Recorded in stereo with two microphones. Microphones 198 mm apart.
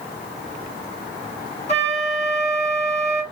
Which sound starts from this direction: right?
A flute, at 1.7 s.